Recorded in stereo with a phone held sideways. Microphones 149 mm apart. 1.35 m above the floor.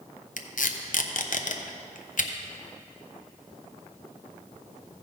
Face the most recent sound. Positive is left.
turn(degrees=65)  # may be behind; listen again after turning